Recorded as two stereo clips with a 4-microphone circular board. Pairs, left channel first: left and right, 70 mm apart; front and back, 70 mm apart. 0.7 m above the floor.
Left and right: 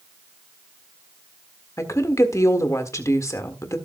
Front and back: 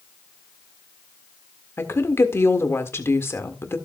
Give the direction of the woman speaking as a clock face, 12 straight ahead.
10 o'clock.